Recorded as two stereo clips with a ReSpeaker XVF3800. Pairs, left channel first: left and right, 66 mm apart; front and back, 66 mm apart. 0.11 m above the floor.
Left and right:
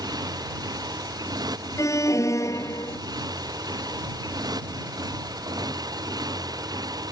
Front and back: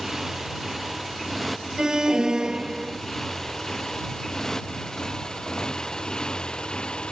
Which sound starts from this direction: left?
An alarm, at 1.8 s.